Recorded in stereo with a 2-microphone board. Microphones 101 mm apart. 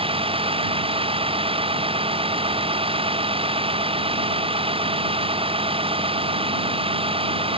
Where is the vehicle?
65° right (ahead or behind).